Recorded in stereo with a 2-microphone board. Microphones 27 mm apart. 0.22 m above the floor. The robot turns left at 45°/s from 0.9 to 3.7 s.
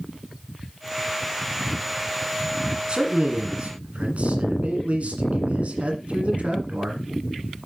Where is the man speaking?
45° right, 1.8 m; by 7.0 s 85° right, 1.8 m.